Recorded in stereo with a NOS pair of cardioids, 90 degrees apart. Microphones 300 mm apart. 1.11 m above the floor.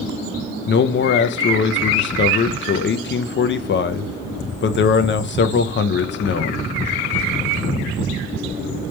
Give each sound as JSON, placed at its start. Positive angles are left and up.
{"t": 0.7, "sound": "a man speaking", "azimuth_deg": 40, "distance_m": 0.5}